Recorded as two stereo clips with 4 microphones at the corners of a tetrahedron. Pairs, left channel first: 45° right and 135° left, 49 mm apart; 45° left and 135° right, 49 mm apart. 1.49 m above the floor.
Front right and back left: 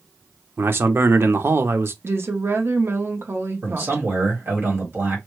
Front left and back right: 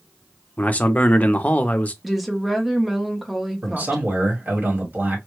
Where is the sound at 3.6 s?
170° left, 1.5 m.